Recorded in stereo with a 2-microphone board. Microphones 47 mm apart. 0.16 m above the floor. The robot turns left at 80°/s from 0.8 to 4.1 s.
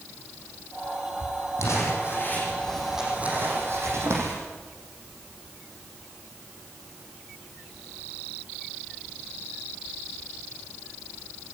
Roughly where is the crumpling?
Left.